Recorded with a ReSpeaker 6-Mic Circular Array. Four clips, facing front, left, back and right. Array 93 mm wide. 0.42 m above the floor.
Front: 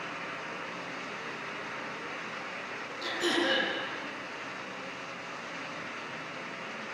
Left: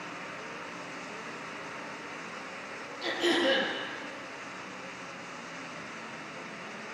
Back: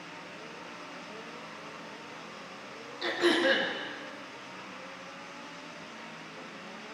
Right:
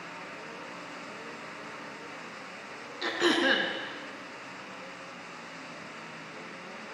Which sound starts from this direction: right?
Throat clearing, at 3.0 s.